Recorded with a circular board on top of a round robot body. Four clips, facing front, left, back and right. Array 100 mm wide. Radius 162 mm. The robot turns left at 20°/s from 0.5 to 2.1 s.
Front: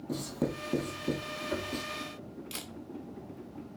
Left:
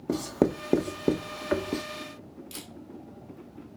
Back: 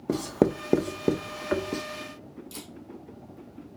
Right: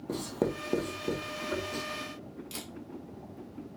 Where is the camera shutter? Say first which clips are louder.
Right 1 dB, back 1 dB; 5° right, 1.8 m.